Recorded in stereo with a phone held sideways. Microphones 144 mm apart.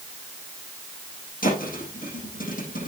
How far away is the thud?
About 6 m.